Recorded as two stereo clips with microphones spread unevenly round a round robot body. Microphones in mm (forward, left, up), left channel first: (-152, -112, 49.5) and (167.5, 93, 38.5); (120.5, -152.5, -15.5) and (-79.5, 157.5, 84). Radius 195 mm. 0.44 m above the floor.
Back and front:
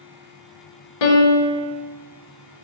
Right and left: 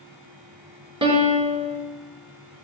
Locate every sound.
1.0 s a piano: 155° right, 1.7 m